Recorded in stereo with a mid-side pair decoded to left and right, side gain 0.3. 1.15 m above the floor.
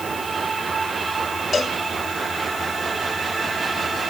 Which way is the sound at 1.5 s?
55° left.